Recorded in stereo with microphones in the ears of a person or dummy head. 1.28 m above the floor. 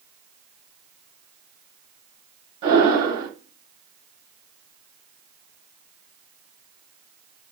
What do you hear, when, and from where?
2.6 s breathing: 30° right (ahead or behind), 0.8 m